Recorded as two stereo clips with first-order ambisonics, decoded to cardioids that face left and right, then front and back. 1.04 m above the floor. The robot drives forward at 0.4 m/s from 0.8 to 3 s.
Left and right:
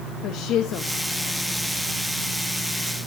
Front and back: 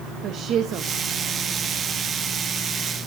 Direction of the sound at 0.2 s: 130° left.